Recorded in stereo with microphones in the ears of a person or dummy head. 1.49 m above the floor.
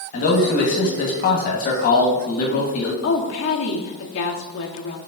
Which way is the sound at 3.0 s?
75° left (ahead or behind).